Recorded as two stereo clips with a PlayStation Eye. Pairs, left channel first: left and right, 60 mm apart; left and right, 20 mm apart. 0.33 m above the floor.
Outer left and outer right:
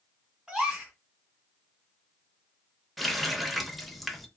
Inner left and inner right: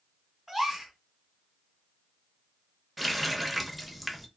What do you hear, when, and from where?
0.5 s a gasp: 10° right (ahead or behind), 1.8 m
3.0 s a running tap: centre (ahead or behind), 0.5 m